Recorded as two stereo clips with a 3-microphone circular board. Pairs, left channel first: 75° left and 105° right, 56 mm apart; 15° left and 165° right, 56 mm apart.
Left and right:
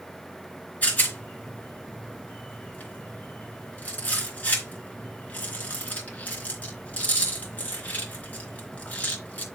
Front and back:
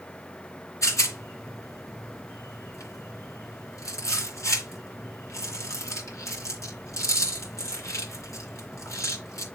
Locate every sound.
0.8 s a rattle: 15° left, 3 m